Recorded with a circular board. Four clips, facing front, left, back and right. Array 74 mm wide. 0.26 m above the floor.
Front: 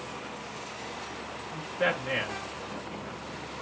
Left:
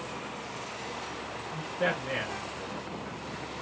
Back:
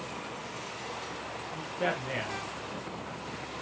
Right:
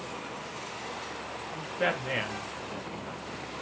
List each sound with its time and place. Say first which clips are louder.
1.5 s a man speaking: even, front 3 dB; 55° right, 1.0 m